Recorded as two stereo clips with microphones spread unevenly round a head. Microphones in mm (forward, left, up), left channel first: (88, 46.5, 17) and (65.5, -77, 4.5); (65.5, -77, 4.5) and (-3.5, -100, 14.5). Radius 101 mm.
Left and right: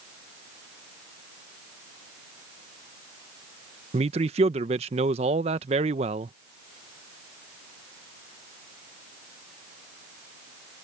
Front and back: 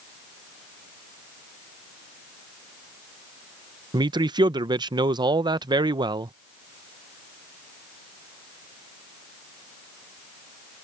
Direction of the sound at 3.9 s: 140° right.